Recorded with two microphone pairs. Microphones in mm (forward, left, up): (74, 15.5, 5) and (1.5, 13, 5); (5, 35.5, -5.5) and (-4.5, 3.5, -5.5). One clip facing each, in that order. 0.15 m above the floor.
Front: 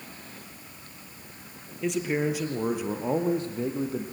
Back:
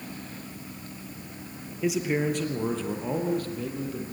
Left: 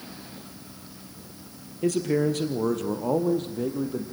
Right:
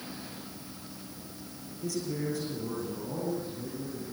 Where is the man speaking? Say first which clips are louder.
Back 1 dB, left 10 dB; 95° left, 3 m; by 4.0 s 60° left, 4 m.